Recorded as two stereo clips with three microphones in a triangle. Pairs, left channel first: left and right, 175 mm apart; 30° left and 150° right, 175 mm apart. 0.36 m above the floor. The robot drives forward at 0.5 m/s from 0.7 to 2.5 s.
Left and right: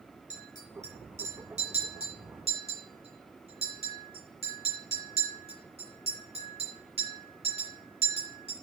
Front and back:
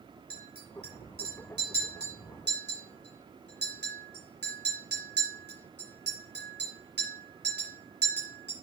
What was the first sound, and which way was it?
A clink, 140° right.